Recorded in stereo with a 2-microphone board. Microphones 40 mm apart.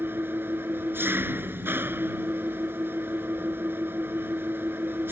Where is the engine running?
65° right (ahead or behind).